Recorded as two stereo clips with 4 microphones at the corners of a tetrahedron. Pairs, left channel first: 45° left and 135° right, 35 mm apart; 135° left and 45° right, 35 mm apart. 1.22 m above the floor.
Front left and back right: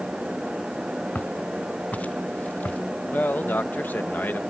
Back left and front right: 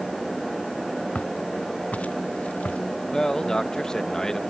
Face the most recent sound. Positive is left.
turn(degrees=65)